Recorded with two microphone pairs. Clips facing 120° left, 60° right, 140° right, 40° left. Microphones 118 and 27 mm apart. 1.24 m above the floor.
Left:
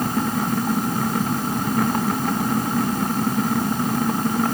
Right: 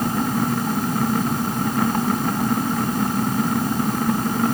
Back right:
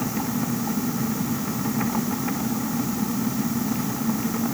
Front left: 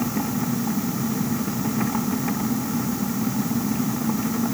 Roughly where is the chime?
I don't hear a chime.